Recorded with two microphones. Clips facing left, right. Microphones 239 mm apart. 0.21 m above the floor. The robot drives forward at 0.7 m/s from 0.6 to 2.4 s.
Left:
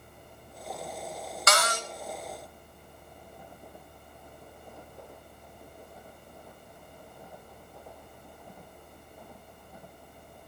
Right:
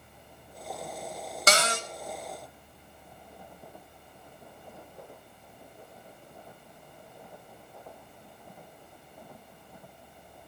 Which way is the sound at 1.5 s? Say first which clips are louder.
Right 2 dB; 30° right (ahead or behind).